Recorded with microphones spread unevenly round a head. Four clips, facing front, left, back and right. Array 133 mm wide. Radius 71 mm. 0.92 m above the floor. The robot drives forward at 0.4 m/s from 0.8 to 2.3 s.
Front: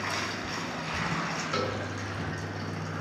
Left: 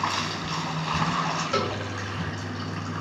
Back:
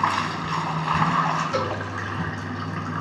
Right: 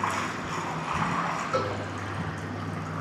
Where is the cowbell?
95° left, 4.5 m.